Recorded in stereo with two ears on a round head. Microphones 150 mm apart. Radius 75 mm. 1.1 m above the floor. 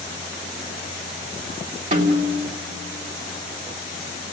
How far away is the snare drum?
About 3 m.